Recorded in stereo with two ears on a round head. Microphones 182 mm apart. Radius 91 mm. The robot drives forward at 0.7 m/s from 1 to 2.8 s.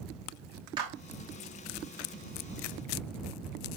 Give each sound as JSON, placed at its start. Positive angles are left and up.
{"t": 0.8, "sound": "a clap", "side_deg": -25, "distance_m": 2.5}